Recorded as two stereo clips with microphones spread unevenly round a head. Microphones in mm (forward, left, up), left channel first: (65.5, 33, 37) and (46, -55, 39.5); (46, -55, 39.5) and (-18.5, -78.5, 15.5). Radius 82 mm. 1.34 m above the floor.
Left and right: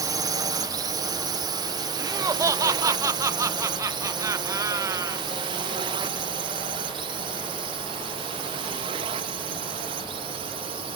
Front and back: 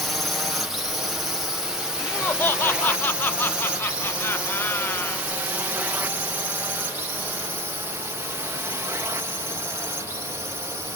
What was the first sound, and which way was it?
A drone, 95° right.